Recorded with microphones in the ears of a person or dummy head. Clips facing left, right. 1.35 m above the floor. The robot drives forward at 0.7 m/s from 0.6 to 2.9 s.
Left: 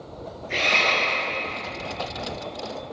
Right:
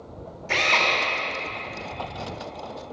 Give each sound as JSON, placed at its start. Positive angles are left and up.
{"t": 0.5, "sound": "a drill", "side_deg": -70, "distance_m": 3.5}